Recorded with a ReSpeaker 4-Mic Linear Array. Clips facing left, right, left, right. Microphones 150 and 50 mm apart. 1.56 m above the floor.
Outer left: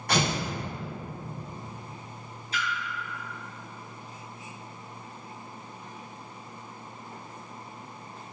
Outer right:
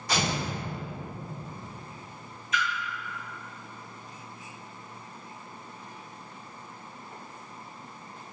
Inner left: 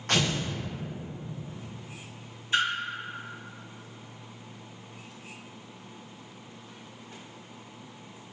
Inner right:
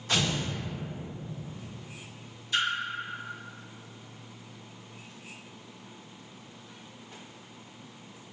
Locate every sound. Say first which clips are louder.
0.1 s tearing paper: outer left 2 dB, inner left 2 dB; 55° left (ahead or behind), 0.9 m
2.5 s a splash: outer right 3 dB, inner left 3 dB; 30° left (ahead or behind), 1.3 m